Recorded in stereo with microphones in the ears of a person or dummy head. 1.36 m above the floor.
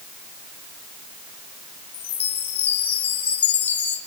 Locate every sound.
1.9 s a chime: 10° left (ahead or behind), 1.7 m